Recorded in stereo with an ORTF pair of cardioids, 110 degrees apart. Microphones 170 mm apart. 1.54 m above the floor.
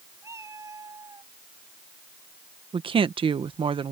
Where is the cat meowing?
15° right; by 1.3 s 20° right.